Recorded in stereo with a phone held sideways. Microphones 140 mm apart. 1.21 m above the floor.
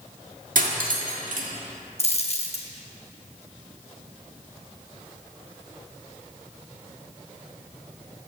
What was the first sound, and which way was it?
Cutlery clinking, 70° right (ahead or behind).